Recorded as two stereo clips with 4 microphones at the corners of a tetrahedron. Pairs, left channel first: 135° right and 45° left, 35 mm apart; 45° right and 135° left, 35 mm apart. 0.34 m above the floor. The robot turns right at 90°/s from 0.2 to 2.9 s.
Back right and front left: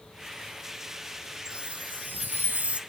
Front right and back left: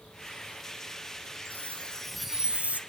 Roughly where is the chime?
Ahead.